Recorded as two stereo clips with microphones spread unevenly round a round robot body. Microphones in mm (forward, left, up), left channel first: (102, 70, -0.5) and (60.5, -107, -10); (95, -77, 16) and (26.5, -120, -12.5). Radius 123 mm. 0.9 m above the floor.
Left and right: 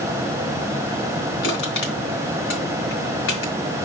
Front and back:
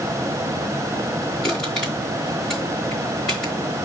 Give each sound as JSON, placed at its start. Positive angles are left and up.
{"t": 1.4, "sound": "crushing", "azimuth_deg": 90, "distance_m": 4.0}